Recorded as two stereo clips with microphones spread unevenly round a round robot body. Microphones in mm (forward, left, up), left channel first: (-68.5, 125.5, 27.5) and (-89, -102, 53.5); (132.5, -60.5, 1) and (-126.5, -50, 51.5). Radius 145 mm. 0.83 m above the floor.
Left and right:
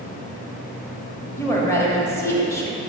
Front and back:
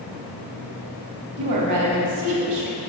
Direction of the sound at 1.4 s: 160° left.